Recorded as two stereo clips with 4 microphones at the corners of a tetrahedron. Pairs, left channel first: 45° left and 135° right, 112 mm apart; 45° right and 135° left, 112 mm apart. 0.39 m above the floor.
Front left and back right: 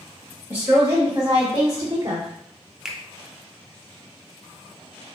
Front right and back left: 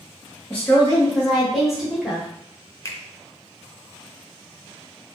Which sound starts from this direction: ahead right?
A finger snap, at 2.9 s.